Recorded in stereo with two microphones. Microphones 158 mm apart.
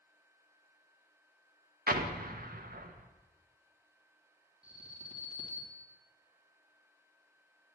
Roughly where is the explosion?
Right.